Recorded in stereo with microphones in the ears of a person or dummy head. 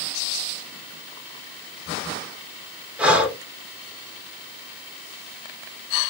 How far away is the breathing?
About 0.8 m.